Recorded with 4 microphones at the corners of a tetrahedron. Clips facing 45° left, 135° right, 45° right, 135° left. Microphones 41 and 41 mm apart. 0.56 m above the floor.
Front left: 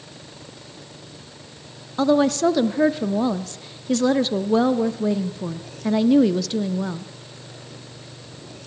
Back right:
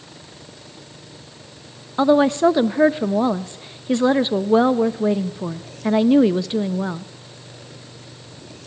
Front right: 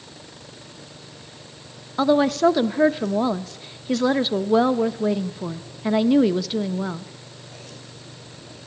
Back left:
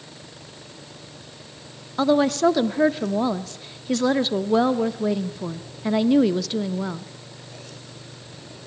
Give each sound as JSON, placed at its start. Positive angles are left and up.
{"t": 2.0, "sound": "a woman speaking", "azimuth_deg": -115, "distance_m": 0.6}